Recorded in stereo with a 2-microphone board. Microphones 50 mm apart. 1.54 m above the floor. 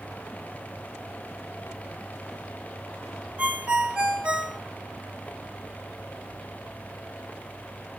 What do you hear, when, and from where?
3.4 s a ringtone: 20° right (ahead or behind), 0.7 m